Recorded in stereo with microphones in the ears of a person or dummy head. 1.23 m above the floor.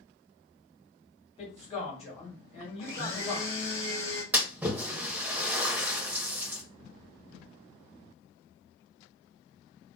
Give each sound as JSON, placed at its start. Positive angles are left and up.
{"t": 1.4, "sound": "a man speaking", "side_deg": 30, "distance_m": 1.5}
{"t": 2.8, "sound": "a blender", "side_deg": 20, "distance_m": 1.0}
{"t": 4.3, "sound": "a splash", "side_deg": -10, "distance_m": 0.6}